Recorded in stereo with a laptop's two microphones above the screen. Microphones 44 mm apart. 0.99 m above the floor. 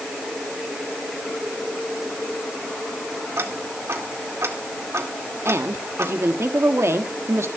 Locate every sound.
3.4 s ticking: 85° right, 2.5 m
5.5 s a woman speaking: 85° right, 1.5 m